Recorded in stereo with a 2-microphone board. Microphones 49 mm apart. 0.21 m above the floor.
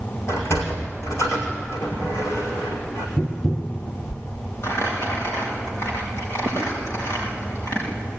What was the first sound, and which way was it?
A sliding door, 80° left.